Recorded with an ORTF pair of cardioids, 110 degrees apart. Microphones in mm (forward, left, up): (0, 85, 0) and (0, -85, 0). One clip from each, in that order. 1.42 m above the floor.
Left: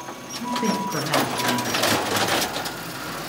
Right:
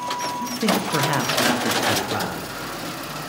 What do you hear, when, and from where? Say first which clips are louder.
0.4 s a man speaking: left 2 dB; 5° left, 0.7 m; by 2.4 s 60° right, 1.6 m